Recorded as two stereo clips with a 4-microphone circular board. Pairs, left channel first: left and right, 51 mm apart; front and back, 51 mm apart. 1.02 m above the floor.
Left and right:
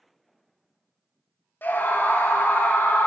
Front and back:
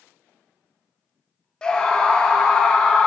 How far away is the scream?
About 0.8 m.